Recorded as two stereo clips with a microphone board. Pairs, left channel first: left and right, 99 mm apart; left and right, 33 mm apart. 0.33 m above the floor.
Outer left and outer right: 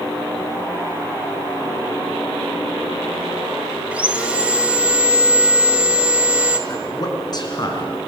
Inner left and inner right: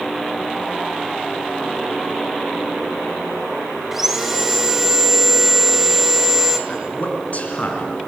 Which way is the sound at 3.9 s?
10° right (ahead or behind).